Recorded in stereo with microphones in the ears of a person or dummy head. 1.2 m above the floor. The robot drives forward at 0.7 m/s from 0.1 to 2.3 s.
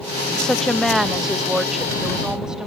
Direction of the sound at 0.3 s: 10° left (ahead or behind).